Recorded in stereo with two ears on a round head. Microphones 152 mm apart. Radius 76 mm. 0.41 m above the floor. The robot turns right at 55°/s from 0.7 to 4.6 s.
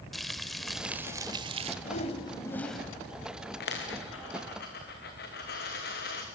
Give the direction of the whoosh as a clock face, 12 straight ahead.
8 o'clock.